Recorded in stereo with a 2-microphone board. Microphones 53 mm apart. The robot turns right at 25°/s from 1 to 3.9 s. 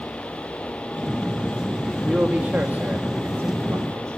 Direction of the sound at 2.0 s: 160° right.